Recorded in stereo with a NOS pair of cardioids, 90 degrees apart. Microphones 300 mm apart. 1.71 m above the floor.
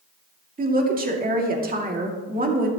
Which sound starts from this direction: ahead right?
A woman speaking, at 0.6 s.